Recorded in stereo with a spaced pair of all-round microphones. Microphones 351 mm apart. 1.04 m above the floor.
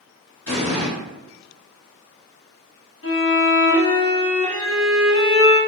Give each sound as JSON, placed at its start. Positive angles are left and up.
{"t": 0.5, "sound": "an explosion", "side_deg": 40, "distance_m": 1.4}
{"t": 3.0, "sound": "a violin", "side_deg": 40, "distance_m": 0.7}